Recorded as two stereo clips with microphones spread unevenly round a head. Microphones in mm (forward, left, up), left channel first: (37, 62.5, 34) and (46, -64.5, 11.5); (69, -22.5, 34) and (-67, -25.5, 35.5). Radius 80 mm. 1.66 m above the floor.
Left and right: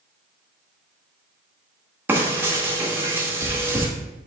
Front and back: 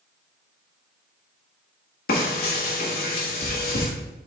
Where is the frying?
5° right, 1.7 m.